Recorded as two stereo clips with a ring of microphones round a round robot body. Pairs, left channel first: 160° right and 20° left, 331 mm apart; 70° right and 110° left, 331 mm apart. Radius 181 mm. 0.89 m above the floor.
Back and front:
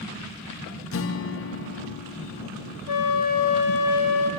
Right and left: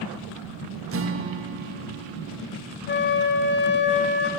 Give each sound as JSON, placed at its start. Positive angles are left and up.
{"t": 0.9, "sound": "a guitar", "azimuth_deg": 160, "distance_m": 1.2}
{"t": 2.9, "sound": "a flute", "azimuth_deg": -130, "distance_m": 1.9}